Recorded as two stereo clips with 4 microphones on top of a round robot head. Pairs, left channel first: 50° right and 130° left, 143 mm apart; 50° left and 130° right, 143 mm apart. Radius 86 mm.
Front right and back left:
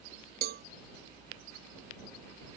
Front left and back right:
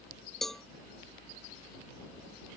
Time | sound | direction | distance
0.4 | a cowbell | 140° left | ?